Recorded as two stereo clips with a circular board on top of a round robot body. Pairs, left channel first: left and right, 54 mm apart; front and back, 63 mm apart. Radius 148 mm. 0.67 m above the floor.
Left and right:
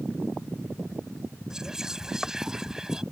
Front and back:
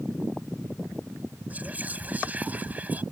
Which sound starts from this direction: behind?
Whispering, at 1.5 s.